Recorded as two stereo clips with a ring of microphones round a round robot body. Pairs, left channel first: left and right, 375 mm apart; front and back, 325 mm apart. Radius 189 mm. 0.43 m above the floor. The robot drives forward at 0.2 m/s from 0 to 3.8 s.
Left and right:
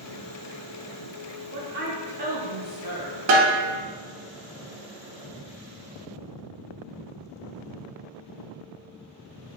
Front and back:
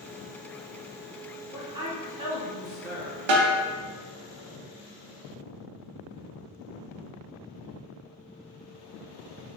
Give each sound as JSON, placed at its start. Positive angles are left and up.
{"t": 1.5, "sound": "a woman speaking", "azimuth_deg": -110, "distance_m": 1.1}
{"t": 3.3, "sound": "a snare drum", "azimuth_deg": -150, "distance_m": 0.6}